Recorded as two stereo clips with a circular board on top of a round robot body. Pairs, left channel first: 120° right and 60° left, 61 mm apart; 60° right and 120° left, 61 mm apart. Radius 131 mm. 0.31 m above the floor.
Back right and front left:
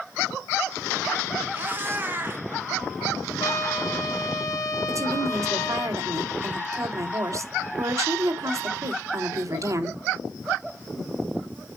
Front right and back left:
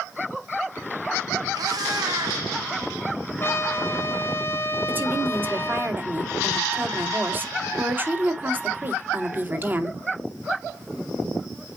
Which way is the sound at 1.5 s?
120° left.